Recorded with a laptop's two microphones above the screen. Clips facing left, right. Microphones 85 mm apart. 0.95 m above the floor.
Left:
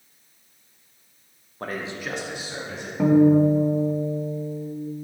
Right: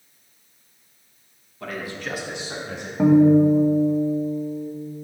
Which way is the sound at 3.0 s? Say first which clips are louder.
Right 2 dB; 5° right (ahead or behind).